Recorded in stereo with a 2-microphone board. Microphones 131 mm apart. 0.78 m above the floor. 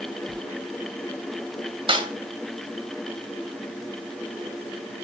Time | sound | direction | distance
0.3 | a sliding door | 35° right (ahead or behind) | 5 m
1.9 | a snare drum | 40° right (ahead or behind) | 2.5 m